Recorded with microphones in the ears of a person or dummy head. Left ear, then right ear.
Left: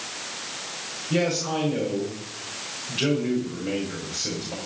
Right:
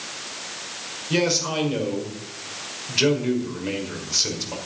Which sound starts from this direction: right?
A man speaking, at 1.1 s.